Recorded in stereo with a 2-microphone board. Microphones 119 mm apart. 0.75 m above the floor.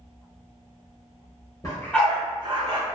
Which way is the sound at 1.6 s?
30° left (ahead or behind).